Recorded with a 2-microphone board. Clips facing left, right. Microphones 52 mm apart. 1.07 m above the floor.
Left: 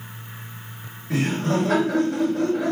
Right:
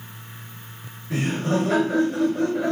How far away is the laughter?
About 1.7 m.